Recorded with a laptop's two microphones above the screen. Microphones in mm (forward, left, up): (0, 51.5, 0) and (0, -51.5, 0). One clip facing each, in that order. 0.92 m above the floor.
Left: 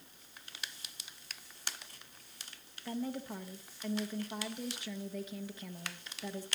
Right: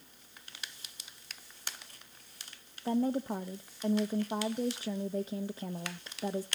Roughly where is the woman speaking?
Right.